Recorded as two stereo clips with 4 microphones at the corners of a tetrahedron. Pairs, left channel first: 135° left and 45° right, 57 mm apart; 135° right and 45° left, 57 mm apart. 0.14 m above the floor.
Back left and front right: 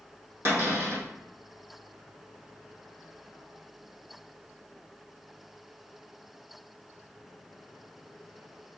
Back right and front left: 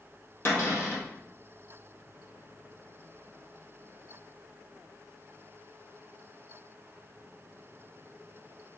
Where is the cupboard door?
90° right, 2.5 m.